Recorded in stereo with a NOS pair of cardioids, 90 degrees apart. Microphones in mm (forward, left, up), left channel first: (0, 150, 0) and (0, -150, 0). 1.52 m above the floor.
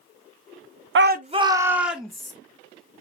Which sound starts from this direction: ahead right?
A shout, at 0.9 s.